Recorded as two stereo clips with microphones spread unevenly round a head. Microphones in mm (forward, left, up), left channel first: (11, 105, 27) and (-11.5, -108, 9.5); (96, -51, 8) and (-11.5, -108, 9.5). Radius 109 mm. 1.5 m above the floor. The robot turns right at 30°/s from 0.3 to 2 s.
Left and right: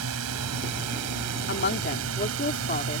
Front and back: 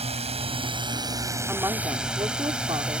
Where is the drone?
120° right; by 3.0 s 70° right.